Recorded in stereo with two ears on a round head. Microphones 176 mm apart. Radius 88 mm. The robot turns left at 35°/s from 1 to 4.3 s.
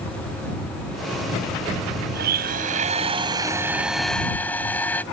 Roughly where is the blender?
Behind right.